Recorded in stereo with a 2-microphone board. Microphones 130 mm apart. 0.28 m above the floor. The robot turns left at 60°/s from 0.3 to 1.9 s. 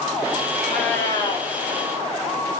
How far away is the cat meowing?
About 3.5 m.